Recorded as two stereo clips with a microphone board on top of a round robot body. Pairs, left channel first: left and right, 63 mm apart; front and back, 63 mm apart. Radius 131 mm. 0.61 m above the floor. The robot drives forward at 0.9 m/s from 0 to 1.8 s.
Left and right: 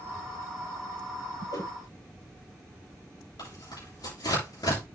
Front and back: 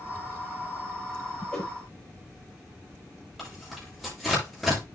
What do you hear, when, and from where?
1.5 s a whoosh: 70° left, 9 m; by 1.7 s 75° left, 9 m
3.4 s tearing paper: 90° left, 8.5 m